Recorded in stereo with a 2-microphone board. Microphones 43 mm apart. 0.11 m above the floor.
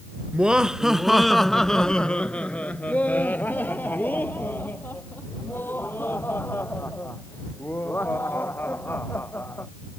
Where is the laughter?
25° right (ahead or behind); by 9.7 s 70° left (ahead or behind).